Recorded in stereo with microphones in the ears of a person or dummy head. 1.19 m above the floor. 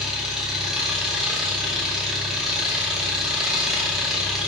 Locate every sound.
0.0 s an engine running: centre (ahead or behind), 0.8 m